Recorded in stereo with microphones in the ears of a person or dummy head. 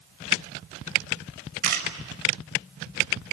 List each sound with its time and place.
1.6 s a camera shutter: 45° right (ahead or behind), 6 m